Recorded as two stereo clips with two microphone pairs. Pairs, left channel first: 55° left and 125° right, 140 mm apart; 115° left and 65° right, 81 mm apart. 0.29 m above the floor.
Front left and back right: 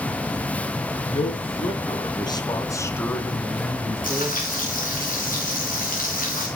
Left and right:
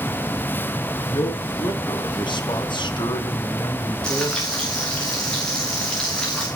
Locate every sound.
1.1 s a man speaking: 90° left, 4 m; by 4.6 s 150° left, 4.5 m
4.0 s frying: 35° left, 7.5 m